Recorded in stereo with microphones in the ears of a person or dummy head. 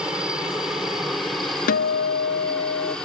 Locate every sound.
0.0 s a helicopter: centre (ahead or behind); by 3.1 s 10° left (ahead or behind)
1.7 s a guitar: 50° left (ahead or behind)